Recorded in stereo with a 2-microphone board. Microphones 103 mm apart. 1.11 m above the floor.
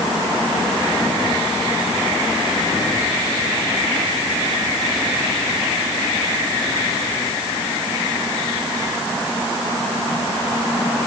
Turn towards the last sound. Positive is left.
No sound to turn to.